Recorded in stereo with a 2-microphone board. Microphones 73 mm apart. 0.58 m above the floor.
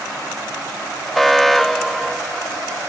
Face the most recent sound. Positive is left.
turn(degrees=0)  # may be behind; listen again after turning